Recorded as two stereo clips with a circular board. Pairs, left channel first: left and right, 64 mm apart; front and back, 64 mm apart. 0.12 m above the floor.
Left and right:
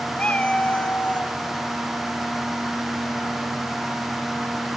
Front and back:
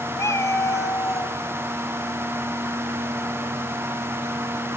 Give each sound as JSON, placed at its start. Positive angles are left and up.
{"t": 0.2, "sound": "a cat meowing", "azimuth_deg": 25, "distance_m": 0.9}